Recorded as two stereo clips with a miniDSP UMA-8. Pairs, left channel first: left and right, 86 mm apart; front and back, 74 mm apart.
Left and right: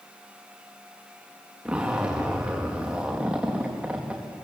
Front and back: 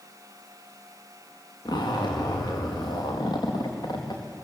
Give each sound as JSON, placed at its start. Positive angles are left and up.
{"t": 1.6, "sound": "a zipper", "azimuth_deg": -15, "distance_m": 4.5}